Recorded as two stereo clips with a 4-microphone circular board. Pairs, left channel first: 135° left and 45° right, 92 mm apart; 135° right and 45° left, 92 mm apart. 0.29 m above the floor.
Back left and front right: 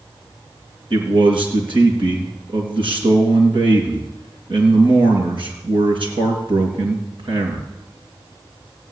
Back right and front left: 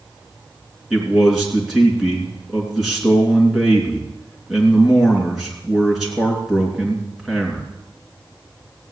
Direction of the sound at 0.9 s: 40° right.